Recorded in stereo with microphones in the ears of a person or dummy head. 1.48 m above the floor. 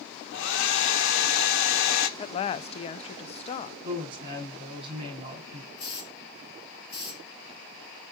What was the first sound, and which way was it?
A hair dryer, 65° left (ahead or behind).